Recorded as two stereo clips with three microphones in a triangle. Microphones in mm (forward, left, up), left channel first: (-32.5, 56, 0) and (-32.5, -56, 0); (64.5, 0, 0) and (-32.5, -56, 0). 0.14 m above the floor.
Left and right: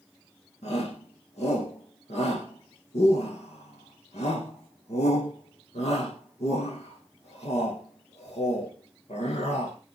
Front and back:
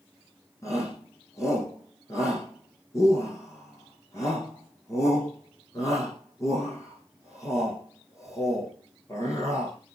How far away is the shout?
About 6.5 m.